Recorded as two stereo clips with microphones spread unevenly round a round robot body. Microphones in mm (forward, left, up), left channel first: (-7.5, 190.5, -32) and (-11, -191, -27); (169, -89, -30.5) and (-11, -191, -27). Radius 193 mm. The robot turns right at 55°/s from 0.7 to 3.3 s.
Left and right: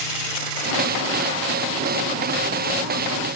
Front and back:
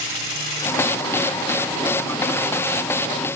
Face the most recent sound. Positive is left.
No sound to turn to.